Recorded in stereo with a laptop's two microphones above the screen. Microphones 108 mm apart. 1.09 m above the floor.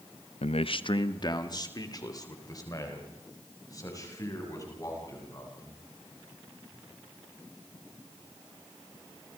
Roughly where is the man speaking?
Left.